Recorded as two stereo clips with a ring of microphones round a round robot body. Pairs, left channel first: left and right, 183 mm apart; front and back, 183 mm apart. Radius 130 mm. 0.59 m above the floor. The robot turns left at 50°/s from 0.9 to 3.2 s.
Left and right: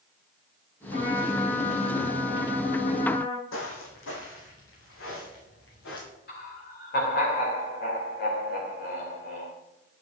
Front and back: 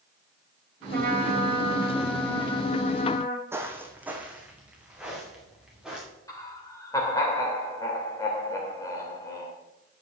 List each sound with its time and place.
0.9 s a trumpet: 150° left, 2.5 m; by 3.4 s 35° left, 2.5 m
3.5 s footsteps: 105° left, 2 m; by 6.1 s 95° left, 5 m
6.3 s laughter: 70° left, 3 m